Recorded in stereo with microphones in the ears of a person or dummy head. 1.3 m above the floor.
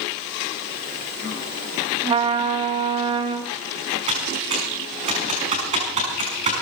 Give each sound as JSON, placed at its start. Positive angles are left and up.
{"t": 2.0, "sound": "a trumpet", "side_deg": -25, "distance_m": 1.4}
{"t": 4.1, "sound": "typing on a keyboard", "side_deg": -35, "distance_m": 6.0}